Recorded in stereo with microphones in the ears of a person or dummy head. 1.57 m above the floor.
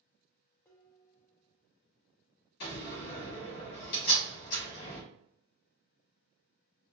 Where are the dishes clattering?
15° left (ahead or behind), 0.6 m.